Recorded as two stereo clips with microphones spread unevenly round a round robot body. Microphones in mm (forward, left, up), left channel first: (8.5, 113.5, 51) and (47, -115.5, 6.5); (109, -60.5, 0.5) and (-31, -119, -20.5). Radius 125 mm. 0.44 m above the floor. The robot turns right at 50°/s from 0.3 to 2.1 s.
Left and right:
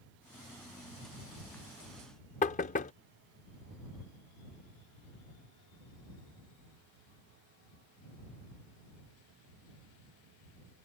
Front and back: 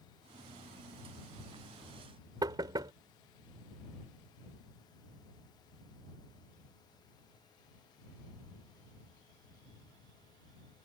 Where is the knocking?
155° left.